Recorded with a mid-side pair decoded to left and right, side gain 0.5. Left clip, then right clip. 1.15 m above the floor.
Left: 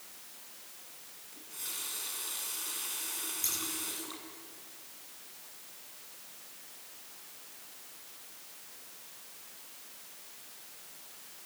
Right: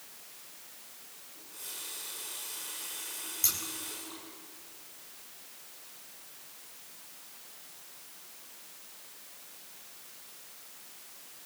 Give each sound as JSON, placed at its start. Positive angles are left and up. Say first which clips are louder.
{"t": 1.3, "sound": "a running tap", "louder": "left 3 dB", "azimuth_deg": 35, "distance_m": 7.0}
{"t": 3.4, "sound": "scissors", "louder": "right 5 dB", "azimuth_deg": -35, "distance_m": 7.0}